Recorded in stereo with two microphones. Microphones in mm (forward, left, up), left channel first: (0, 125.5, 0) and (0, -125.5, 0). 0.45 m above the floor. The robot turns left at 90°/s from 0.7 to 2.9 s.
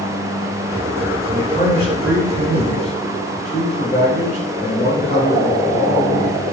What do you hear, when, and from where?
1.3 s a man speaking: straight behind, 5 m; by 6.5 s 35° left, 5 m